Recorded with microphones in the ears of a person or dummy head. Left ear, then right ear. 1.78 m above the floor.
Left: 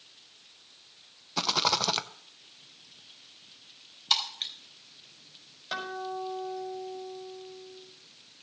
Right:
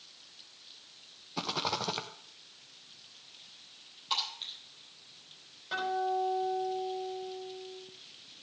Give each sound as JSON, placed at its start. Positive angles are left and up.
{"t": 1.4, "sound": "a rattle", "side_deg": 25, "distance_m": 0.6}
{"t": 4.1, "sound": "breaking glass", "side_deg": 45, "distance_m": 3.0}
{"t": 5.7, "sound": "a guitar", "side_deg": 35, "distance_m": 5.0}